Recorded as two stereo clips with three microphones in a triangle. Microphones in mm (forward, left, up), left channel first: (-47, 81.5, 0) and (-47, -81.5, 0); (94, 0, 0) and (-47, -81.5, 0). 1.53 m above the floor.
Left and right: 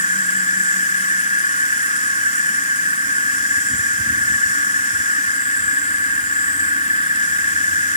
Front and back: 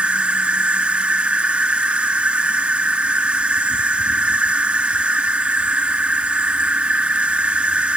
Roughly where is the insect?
Behind left.